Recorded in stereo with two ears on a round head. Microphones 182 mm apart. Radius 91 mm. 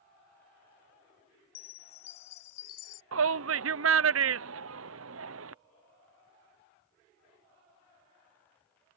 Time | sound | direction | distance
1.6 | a chime | 85° left | ?
3.1 | a shout | 70° right (ahead or behind) | ?